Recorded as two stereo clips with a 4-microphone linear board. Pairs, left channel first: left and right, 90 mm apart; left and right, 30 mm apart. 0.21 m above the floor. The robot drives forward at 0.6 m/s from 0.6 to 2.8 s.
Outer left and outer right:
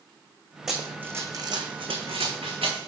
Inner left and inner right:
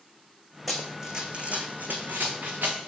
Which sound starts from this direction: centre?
Running footsteps, at 0.7 s.